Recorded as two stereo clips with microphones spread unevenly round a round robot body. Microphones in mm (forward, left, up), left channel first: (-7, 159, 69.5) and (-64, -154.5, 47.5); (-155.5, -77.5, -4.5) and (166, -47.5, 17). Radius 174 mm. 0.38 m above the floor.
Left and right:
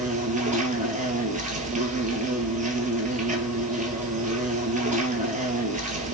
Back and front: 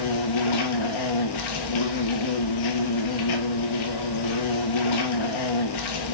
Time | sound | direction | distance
0.0 | an insect | 170° right | 0.8 m